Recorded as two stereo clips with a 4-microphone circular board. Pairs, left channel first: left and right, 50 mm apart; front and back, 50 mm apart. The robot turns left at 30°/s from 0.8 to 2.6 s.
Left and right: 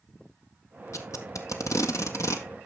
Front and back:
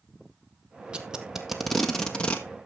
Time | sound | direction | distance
0.9 | tape being pulled | 110° left | 1.7 m